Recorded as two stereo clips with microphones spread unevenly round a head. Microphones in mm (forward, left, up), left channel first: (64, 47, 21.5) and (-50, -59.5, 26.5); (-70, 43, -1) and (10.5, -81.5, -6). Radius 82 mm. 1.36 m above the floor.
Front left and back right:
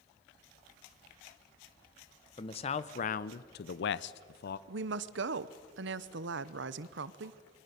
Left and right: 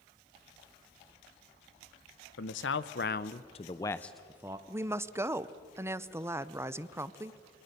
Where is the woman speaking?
130° right, 0.7 m.